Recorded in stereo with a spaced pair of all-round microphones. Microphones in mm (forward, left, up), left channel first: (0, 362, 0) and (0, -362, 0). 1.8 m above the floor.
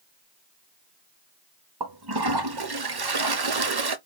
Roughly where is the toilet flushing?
Right.